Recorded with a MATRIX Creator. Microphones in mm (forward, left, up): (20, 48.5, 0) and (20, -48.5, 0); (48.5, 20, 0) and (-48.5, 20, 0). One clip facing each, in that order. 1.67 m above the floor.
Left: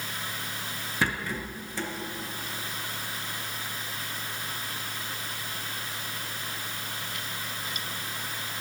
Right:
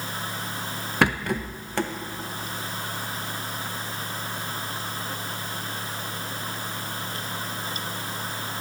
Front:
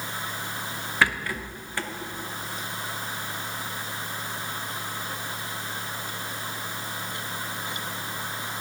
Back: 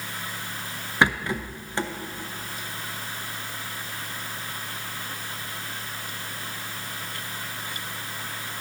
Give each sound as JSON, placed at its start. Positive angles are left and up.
{"t": 1.0, "sound": "a rattle", "azimuth_deg": -115, "distance_m": 0.6}